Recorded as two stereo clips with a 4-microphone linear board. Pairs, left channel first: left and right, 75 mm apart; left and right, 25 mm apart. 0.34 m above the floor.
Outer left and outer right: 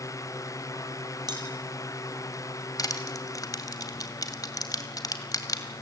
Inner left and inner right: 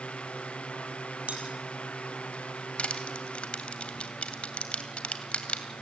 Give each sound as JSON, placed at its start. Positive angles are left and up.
{"t": 1.3, "sound": "cutlery clinking", "side_deg": -65, "distance_m": 4.5}
{"t": 2.8, "sound": "crushing", "side_deg": 50, "distance_m": 2.0}